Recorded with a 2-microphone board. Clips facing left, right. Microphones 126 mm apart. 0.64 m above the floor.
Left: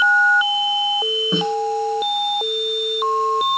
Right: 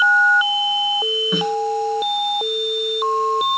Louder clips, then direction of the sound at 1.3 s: Even; 25° left (ahead or behind).